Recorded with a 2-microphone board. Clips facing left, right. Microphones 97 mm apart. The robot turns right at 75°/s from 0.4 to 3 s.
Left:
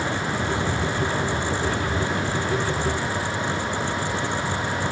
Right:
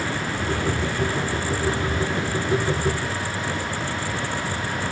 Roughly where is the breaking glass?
No breaking glass in this recording.